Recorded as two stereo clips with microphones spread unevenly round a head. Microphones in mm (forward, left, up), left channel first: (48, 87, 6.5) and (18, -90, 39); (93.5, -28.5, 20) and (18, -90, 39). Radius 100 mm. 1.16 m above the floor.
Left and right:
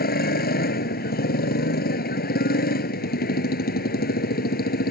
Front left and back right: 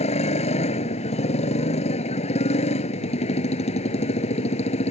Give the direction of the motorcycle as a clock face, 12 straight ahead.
11 o'clock.